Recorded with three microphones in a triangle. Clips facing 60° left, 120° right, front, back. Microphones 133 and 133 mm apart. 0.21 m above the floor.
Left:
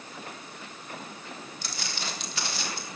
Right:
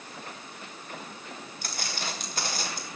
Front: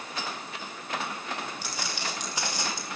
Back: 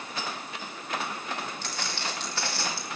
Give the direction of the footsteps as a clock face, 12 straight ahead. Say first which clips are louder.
Right 3 dB, even; 3 o'clock.